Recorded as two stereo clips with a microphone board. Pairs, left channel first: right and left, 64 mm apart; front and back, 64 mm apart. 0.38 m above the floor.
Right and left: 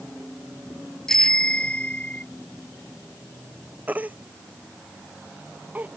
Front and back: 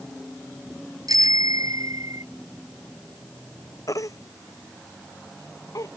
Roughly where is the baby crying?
Ahead left.